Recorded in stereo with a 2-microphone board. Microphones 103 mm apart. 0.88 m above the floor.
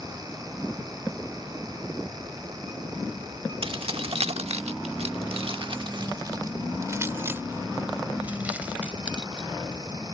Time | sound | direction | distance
3.6 | keys jangling | 60° right (ahead or behind) | ?